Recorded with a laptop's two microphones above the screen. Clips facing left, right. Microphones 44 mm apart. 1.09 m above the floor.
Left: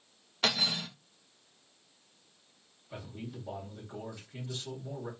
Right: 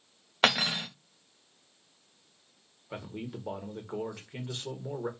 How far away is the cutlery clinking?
About 0.5 m.